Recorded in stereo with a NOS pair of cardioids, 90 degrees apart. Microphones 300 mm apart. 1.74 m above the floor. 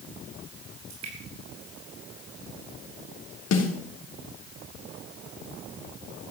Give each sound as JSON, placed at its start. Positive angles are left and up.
{"t": 0.9, "sound": "dripping", "azimuth_deg": -65, "distance_m": 6.5}
{"t": 3.5, "sound": "a snare drum", "azimuth_deg": 60, "distance_m": 3.5}